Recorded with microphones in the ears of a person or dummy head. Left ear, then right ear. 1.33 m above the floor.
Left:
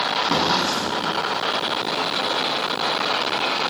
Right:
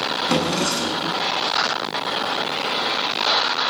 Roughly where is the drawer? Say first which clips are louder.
Even; right.